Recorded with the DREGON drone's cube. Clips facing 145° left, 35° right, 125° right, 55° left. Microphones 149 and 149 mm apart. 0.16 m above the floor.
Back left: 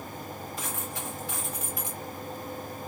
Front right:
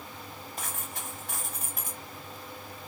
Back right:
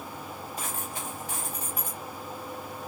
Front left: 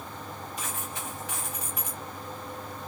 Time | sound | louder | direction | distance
0.6 | a dropped coin | back left 1 dB, back right 2 dB | 75° right | 1.7 m